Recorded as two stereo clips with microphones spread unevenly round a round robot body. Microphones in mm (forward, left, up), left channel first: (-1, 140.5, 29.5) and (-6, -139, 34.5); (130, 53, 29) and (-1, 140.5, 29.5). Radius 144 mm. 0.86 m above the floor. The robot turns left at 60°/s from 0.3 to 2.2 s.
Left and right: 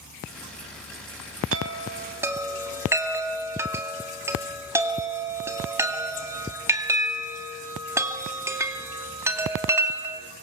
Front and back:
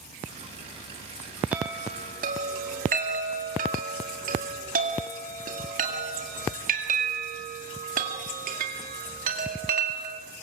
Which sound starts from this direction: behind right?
A chime, at 1.5 s.